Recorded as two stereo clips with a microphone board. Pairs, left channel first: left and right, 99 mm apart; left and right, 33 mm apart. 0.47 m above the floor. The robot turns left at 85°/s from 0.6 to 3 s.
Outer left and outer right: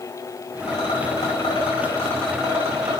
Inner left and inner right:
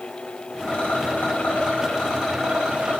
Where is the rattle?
150° left, 5.5 m; by 3.0 s 55° right, 5.5 m.